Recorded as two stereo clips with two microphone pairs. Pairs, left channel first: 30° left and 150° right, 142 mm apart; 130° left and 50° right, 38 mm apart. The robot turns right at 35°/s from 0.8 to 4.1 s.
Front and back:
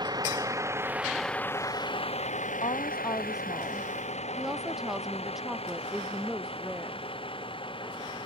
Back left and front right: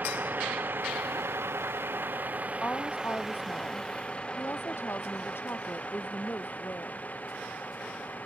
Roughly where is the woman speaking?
Left.